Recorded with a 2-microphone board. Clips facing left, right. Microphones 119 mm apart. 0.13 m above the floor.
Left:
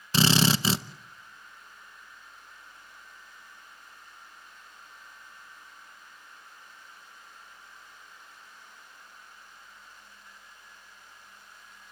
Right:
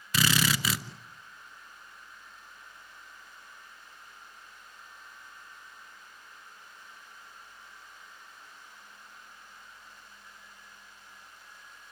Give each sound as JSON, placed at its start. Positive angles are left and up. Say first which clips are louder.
{"t": 0.1, "sound": "a drill", "louder": "left 5 dB", "side_deg": 30, "distance_m": 0.8}